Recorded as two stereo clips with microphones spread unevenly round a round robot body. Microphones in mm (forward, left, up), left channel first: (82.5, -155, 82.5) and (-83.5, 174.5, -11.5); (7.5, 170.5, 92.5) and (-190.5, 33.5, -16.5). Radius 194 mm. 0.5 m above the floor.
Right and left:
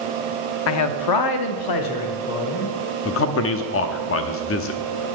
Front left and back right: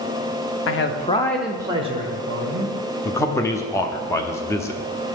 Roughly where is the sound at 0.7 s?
Ahead.